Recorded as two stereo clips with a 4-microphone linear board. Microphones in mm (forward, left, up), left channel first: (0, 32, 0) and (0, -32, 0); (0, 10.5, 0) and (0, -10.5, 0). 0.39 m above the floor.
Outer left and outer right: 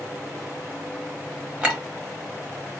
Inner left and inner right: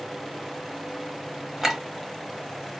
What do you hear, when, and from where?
1.6 s a clink: 15° right (ahead or behind), 1.1 m